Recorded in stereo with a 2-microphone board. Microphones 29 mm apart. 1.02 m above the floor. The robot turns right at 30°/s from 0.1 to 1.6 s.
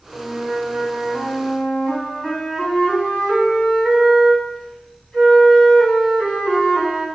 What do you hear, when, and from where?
0.1 s a flute: 20° right, 5.5 m; by 7.0 s 20° left, 5.5 m